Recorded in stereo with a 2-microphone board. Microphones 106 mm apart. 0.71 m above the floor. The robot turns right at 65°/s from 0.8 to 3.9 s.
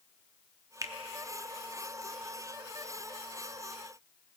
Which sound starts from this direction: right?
A finger snap, at 0.8 s.